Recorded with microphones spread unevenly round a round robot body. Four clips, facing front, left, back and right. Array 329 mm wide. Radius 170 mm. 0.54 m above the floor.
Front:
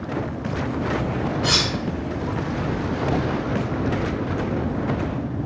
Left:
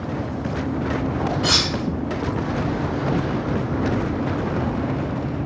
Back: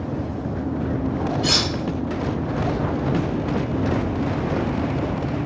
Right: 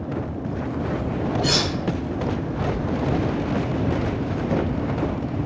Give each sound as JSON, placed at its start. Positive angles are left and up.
{"t": 1.4, "sound": "cutlery clinking", "azimuth_deg": 175, "distance_m": 1.6}